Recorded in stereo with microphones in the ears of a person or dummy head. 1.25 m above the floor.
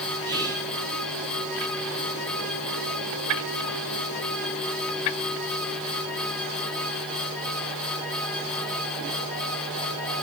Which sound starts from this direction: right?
Whispering, at 0.2 s.